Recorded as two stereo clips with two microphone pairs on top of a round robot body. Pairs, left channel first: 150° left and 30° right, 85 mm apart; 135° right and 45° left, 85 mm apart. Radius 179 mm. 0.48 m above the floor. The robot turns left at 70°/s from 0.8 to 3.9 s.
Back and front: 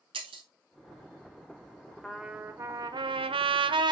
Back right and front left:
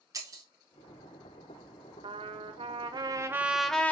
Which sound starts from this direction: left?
A trumpet, at 2.0 s.